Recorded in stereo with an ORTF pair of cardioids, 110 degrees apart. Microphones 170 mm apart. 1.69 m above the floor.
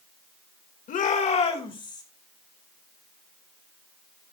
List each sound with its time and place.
0.9 s a shout: 55° left, 2.5 m; by 2.0 s 25° left, 2.5 m